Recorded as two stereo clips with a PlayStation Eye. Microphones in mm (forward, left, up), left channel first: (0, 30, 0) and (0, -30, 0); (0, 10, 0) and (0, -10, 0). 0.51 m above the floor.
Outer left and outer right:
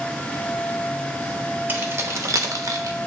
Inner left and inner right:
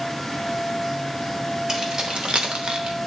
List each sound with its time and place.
1.7 s keys jangling: 30° right (ahead or behind), 1.0 m; by 3.0 s 55° right (ahead or behind), 1.0 m